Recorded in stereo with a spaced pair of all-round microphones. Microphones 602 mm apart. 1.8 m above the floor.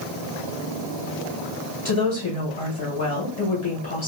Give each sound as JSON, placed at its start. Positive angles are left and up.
{"t": 1.9, "sound": "a woman speaking", "side_deg": 45, "distance_m": 1.9}